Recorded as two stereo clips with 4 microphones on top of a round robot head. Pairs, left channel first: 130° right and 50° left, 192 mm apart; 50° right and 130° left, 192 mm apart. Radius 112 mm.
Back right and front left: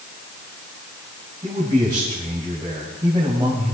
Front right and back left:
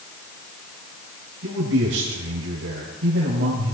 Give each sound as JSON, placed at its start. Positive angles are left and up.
{"t": 1.4, "sound": "a man speaking", "azimuth_deg": 120, "distance_m": 3.5}